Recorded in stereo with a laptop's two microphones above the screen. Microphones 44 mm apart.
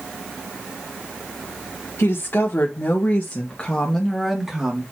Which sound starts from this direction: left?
A woman speaking, at 2.0 s.